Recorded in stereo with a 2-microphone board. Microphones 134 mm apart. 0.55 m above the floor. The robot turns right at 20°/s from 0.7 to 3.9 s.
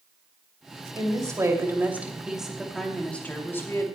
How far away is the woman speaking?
About 2.5 m.